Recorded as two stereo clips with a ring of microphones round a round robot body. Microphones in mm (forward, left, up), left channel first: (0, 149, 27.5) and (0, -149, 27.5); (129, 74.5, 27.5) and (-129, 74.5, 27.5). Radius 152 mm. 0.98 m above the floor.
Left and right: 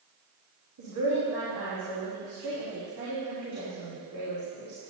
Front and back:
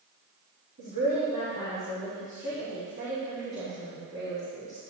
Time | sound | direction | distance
0.8 | a woman speaking | 120° right | 3 m